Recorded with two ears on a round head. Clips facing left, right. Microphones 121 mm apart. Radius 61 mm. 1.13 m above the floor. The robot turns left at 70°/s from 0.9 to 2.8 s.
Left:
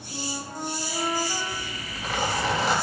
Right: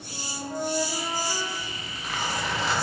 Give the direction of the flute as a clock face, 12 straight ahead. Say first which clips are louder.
Even; 3 o'clock.